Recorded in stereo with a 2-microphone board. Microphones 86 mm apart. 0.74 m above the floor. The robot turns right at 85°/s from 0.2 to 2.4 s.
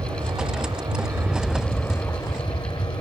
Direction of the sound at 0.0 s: 115° right.